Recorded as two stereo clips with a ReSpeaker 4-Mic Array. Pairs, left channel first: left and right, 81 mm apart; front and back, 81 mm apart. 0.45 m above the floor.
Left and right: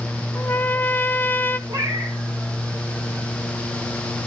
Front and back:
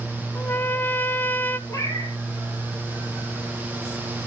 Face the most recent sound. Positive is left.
turn(degrees=-55)